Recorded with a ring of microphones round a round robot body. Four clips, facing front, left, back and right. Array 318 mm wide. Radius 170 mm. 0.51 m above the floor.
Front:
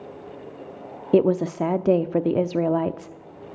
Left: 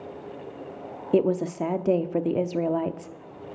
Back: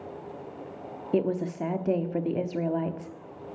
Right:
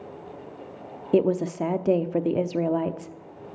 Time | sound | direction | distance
1.1 | a woman speaking | 10° right | 0.8 m